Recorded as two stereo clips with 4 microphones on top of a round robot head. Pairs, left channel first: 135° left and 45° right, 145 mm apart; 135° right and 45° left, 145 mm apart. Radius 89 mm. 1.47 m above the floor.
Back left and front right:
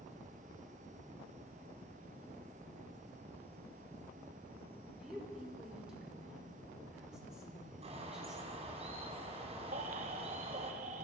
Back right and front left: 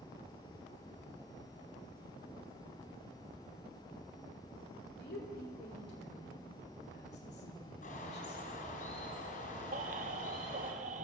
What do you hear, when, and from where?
5.0 s a woman speaking: 130° right, 5 m
7.8 s a bird: 95° right, 4 m
9.7 s a baby crying: straight ahead, 1.1 m